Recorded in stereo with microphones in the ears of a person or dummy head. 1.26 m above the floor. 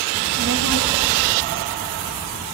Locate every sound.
0.1 s a child speaking: 45° right (ahead or behind), 1.0 m; by 2.5 s 50° right (ahead or behind), 1.9 m